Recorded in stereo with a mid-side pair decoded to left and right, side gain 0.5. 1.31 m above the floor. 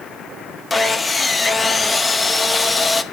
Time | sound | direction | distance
0.7 | sawing | 20° left | 1.0 m